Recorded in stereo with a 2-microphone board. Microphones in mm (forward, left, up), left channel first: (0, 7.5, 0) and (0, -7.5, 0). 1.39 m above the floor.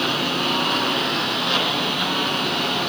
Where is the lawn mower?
5° left (ahead or behind).